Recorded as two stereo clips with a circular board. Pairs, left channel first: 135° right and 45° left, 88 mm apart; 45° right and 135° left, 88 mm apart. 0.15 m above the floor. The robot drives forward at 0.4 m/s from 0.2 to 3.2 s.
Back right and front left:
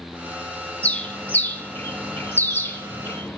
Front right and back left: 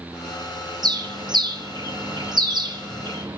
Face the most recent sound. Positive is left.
turn(degrees=160)